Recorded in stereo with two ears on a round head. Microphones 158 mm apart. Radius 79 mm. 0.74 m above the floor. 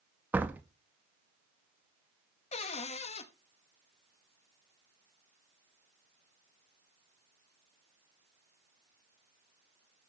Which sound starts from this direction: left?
A cupboard door, at 2.5 s.